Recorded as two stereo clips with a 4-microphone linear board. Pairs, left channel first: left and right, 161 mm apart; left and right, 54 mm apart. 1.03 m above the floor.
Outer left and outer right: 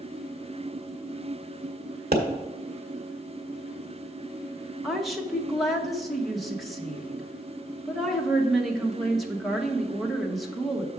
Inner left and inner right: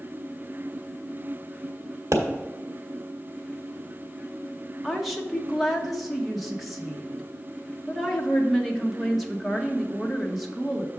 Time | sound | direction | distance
2.1 | a pop | 80° right | 1.6 m
4.8 | a woman speaking | centre (ahead or behind) | 1.0 m